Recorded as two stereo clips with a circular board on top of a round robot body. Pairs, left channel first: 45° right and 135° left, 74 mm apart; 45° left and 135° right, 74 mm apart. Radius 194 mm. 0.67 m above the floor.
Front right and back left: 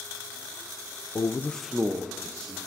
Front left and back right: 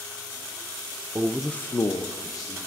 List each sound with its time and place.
1.1 s a man speaking: 80° right, 0.6 m; by 2.6 s 80° left, 1.2 m